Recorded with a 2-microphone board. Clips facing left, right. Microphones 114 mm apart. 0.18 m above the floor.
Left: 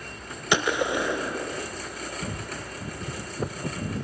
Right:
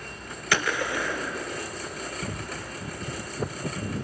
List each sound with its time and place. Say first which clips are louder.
0.5 s a gunshot: left 3 dB; 20° left (ahead or behind), 0.7 m